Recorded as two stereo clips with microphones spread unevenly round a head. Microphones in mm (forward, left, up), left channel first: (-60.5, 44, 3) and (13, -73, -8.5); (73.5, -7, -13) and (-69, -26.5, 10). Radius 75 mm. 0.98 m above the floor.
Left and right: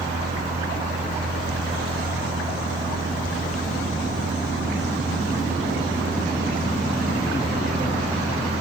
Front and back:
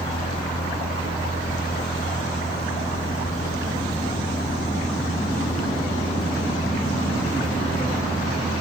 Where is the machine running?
50° right.